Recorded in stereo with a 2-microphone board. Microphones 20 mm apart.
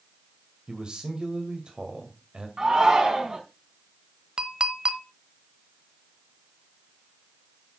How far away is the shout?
About 5 m.